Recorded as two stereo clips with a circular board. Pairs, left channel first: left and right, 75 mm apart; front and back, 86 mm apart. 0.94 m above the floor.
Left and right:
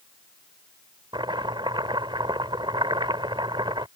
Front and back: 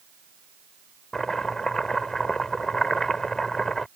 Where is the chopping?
85° right.